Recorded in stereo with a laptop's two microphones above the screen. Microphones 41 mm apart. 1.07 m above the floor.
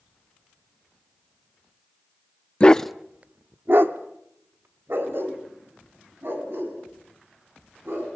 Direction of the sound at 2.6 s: 25° left (ahead or behind).